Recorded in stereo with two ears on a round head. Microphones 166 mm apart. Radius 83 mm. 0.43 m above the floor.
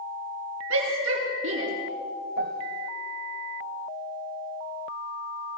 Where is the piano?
50° right (ahead or behind), 0.6 m.